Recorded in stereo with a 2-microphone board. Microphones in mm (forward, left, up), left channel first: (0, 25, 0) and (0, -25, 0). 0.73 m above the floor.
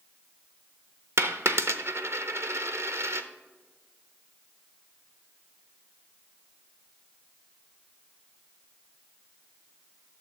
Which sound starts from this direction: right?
A dropped coin, at 1.2 s.